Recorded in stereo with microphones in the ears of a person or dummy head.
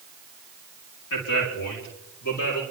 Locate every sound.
1.1 s a man speaking: 65° left (ahead or behind), 4.5 m; by 2.6 s 55° left (ahead or behind), 4.5 m